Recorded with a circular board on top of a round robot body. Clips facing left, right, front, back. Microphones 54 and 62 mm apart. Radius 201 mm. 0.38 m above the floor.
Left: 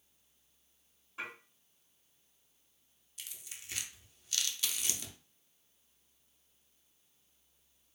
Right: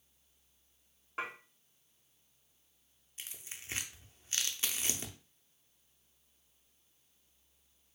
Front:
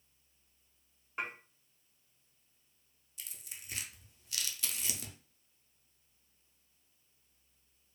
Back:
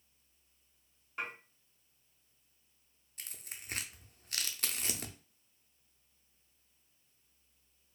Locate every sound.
1.2 s dishes clattering: 70° right, 2 m
3.2 s tearing paper: 145° right, 0.7 m